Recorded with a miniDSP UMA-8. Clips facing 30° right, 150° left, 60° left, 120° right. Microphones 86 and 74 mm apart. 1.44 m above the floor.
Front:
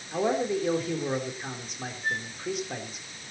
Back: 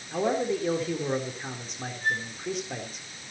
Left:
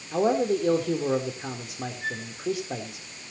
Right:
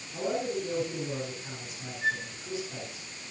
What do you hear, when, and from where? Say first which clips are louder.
0.1 s a man speaking: even, left 8 dB; 60° left, 3.5 m
2.0 s a flute: back 3 dB, right 7 dB; 165° left, 8.5 m